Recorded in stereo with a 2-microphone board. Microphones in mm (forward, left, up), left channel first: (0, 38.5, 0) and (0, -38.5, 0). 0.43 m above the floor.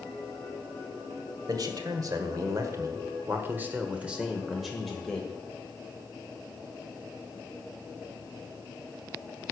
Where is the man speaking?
55° right (ahead or behind), 1.8 m; by 5.3 s 10° left (ahead or behind), 1.8 m.